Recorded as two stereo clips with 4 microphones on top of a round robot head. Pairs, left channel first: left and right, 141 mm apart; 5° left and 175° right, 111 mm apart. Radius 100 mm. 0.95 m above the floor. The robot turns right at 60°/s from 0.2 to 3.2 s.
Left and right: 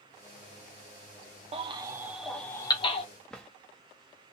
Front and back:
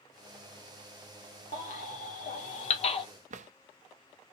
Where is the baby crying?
45° right, 1.1 m; by 3.0 s 45° left, 1.1 m.